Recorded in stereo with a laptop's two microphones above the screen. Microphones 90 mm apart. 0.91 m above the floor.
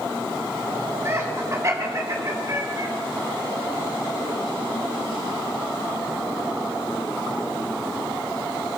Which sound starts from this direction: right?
Laughter, at 1.1 s.